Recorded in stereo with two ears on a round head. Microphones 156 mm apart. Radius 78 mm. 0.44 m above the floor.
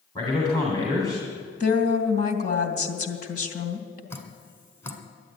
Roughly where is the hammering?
No hammering in this recording.